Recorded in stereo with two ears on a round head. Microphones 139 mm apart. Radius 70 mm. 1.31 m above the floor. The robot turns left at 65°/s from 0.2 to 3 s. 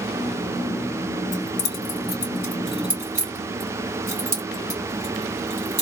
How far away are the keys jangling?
About 2.5 m.